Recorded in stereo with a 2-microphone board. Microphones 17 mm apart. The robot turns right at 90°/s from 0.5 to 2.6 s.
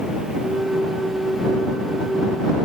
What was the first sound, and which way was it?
Only background noise.